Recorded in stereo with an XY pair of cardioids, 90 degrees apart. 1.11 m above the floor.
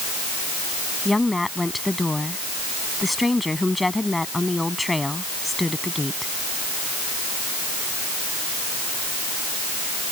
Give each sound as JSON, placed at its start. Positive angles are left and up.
{"t": 1.1, "sound": "a woman speaking", "azimuth_deg": 15}